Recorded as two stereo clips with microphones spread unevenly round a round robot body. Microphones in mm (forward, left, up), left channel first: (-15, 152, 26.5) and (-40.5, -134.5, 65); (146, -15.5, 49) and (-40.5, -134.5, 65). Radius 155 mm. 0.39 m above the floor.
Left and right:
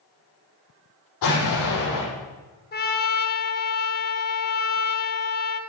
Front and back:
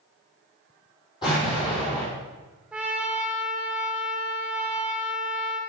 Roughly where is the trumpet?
Behind left.